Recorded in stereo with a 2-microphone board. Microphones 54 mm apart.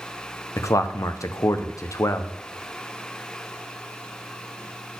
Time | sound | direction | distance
0.6 | a man speaking | 75° left (ahead or behind) | 0.7 m